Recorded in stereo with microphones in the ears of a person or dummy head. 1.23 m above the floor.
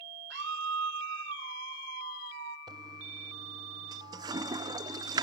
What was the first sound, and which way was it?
A scream, 60° right (ahead or behind).